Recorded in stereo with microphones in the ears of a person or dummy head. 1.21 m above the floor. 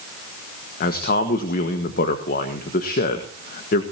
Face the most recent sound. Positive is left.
turn(degrees=50)  # may be behind; listen again after turning